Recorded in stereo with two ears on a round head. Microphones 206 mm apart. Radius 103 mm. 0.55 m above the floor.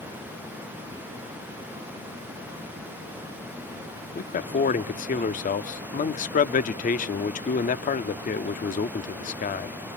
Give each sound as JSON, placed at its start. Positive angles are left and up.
{"t": 4.2, "sound": "a man speaking", "side_deg": 35, "distance_m": 0.8}